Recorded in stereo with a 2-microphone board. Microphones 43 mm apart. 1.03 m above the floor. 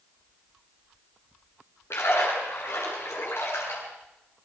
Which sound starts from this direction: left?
A splash, at 1.9 s.